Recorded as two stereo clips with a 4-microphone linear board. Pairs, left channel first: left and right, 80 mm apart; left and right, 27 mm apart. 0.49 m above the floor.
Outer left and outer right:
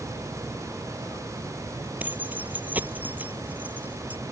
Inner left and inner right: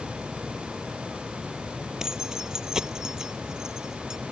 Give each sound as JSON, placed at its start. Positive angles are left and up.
{"t": 2.0, "sound": "keys jangling", "side_deg": -20}